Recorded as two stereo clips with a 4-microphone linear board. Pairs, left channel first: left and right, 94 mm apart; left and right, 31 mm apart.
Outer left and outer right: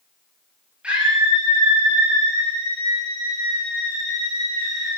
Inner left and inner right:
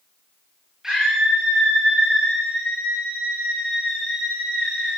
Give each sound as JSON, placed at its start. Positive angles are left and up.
{"t": 0.8, "sound": "a scream", "side_deg": -10, "distance_m": 4.5}